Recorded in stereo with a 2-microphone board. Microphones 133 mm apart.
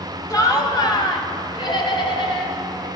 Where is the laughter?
25° left (ahead or behind), 1.3 m; by 2.9 s 40° left (ahead or behind), 2.5 m.